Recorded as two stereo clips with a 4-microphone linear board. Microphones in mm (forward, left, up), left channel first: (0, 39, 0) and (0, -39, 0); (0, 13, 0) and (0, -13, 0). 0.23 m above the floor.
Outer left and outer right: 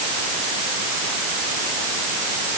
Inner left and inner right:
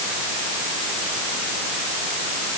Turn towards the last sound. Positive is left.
No sound to turn to.